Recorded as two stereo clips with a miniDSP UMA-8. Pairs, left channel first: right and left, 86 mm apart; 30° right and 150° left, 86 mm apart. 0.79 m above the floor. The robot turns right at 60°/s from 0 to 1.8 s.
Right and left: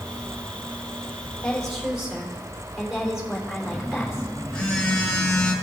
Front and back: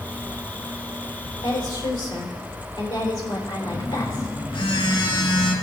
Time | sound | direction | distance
1.4 | a woman speaking | 20° right | 3 m
3.7 | a phone buzzing | 10° right | 1.5 m